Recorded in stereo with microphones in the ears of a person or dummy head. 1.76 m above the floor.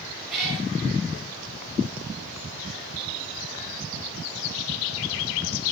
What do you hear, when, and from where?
0.3 s a cat meowing: 5° right (ahead or behind), 9.5 m